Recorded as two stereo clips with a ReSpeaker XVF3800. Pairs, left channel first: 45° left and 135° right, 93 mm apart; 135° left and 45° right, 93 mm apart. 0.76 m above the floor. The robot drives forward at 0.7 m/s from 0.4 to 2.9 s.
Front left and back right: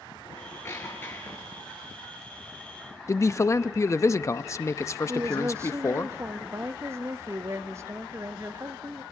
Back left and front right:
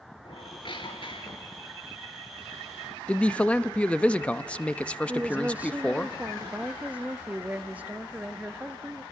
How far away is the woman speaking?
About 0.7 m.